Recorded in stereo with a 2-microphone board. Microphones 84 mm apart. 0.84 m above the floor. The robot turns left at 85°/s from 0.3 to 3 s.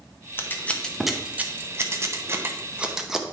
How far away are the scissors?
About 0.7 m.